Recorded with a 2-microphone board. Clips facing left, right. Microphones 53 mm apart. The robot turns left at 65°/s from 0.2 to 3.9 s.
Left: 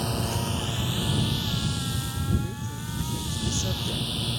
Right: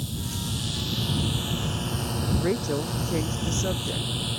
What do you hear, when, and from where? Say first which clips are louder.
0.0 s a drone: left 5 dB; 65° left; by 4.4 s 175° right
2.4 s a woman speaking: right 8 dB; 65° right; by 4.1 s 165° right